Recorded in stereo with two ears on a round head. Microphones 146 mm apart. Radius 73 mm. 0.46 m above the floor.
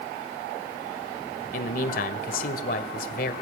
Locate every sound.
1.5 s a man speaking: 55° left (ahead or behind), 1.8 m